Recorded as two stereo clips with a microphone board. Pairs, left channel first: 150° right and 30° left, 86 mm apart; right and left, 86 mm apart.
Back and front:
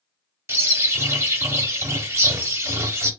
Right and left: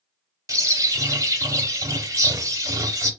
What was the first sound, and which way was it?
A bird, 65° left.